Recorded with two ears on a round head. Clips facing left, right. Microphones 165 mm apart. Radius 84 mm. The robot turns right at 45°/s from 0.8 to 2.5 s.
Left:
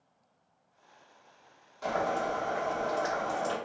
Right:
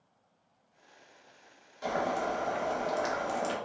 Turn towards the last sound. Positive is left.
turn(degrees=-140)